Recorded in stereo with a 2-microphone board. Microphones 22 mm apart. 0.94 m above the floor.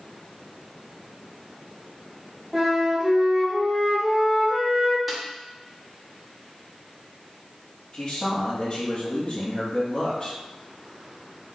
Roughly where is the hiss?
No hiss in this recording.